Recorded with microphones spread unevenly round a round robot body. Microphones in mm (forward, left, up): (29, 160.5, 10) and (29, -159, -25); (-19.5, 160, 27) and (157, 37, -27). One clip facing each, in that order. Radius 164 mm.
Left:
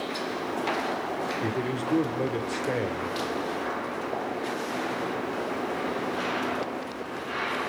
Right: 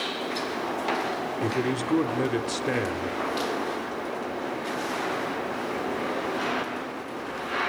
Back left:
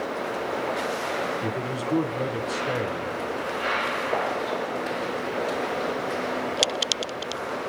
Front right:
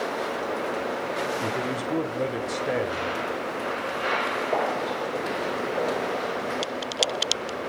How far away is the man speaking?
About 1.0 m.